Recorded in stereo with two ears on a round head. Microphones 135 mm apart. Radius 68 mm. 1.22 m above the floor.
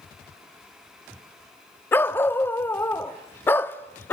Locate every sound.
1.9 s a dog barking: 15° left (ahead or behind), 0.7 m